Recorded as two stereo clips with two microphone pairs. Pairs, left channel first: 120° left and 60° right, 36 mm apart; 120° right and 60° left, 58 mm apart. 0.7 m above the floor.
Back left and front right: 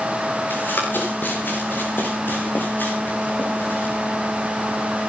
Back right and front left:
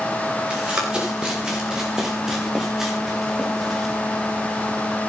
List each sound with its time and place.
0.5 s running footsteps: 130° left, 8.5 m; by 4.0 s 150° left, 7.5 m